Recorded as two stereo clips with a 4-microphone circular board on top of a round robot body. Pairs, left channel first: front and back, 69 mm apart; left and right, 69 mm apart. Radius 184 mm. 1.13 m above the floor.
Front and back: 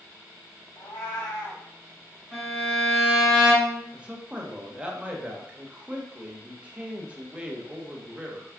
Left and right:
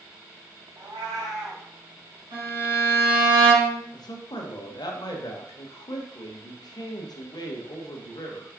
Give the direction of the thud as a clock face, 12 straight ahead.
No thud in this recording.